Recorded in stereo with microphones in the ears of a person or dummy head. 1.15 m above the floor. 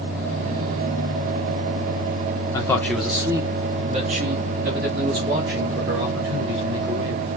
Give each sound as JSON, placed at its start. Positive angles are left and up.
{"t": 2.5, "sound": "a man speaking", "side_deg": 20, "distance_m": 0.9}